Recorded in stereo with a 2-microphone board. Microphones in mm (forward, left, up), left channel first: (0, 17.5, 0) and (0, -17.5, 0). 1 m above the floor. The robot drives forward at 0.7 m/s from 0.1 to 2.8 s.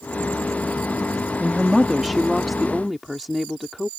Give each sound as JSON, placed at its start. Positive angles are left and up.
{"t": 1.4, "sound": "a woman speaking", "side_deg": -5}